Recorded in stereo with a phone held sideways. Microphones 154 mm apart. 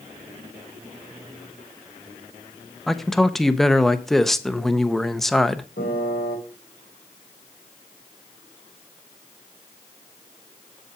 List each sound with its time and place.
2.9 s a man speaking: centre (ahead or behind), 0.6 m
5.8 s a piano: 80° left, 3 m